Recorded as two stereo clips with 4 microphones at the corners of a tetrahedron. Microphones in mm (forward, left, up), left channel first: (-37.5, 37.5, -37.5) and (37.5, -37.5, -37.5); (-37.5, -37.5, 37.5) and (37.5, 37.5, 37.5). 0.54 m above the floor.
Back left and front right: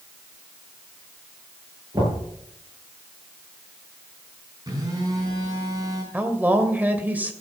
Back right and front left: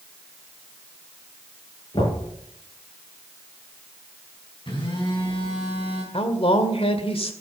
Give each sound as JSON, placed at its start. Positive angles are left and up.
{"t": 1.9, "sound": "knocking", "azimuth_deg": -95, "distance_m": 8.0}
{"t": 4.7, "sound": "a phone buzzing", "azimuth_deg": -100, "distance_m": 5.0}
{"t": 6.1, "sound": "a woman speaking", "azimuth_deg": -120, "distance_m": 1.9}